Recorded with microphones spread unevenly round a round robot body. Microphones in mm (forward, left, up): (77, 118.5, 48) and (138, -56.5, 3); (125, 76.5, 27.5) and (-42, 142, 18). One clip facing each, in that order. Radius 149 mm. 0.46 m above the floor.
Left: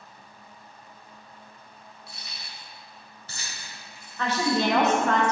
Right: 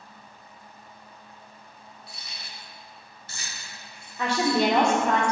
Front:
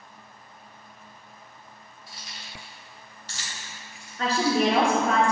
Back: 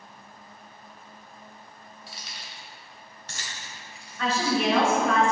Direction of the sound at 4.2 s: 35° right.